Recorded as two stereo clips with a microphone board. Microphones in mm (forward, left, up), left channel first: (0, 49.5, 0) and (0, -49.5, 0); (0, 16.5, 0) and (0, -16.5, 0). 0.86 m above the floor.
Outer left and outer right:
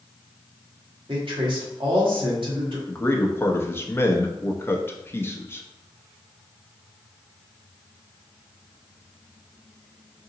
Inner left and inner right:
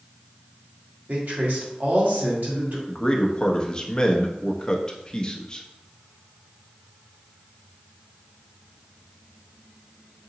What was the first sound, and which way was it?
A man speaking, 65° right (ahead or behind).